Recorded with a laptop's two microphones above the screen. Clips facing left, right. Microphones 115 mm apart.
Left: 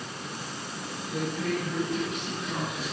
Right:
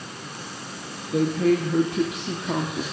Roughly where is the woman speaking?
Right.